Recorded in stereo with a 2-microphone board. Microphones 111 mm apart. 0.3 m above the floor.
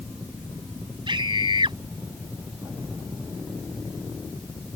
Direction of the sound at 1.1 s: 50° right (ahead or behind).